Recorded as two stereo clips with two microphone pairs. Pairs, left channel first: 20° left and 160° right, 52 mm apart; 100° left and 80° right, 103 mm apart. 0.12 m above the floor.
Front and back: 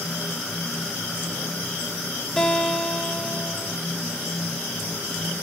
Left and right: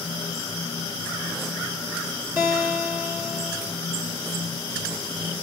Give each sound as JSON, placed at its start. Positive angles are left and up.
{"t": 2.4, "sound": "a guitar", "azimuth_deg": -60, "distance_m": 1.2}